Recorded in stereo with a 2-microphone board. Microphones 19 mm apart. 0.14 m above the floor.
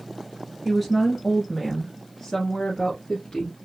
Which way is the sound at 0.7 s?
Centre (ahead or behind).